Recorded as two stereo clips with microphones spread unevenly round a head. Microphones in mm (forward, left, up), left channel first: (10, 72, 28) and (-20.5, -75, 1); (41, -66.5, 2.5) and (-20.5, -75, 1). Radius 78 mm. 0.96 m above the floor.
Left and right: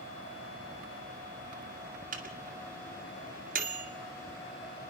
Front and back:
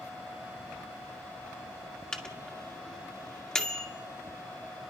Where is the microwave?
70° right, 2 m.